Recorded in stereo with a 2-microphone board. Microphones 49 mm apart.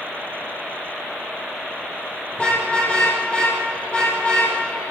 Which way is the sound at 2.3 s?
25° left (ahead or behind).